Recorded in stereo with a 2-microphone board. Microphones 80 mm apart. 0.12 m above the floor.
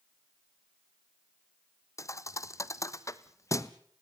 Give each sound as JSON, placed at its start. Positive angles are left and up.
{"t": 2.0, "sound": "a thud", "side_deg": 40, "distance_m": 0.9}